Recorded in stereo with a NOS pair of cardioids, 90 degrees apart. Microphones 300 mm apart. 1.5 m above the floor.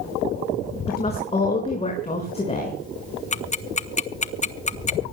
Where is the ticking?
25° left, 1.1 m.